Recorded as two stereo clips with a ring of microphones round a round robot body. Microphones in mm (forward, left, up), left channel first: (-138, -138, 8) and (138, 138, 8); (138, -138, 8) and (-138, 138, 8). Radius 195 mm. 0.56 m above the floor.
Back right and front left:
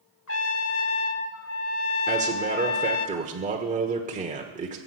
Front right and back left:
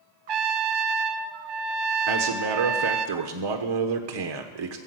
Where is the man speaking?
115° left, 1.3 m.